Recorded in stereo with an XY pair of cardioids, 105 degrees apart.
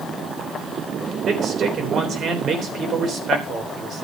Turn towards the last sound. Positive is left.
turn(degrees=-50)